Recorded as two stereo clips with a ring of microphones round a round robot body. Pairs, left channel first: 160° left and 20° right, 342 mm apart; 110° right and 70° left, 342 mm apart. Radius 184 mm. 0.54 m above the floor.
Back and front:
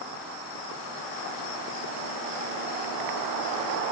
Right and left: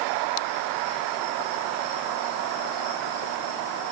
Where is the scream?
No scream in this recording.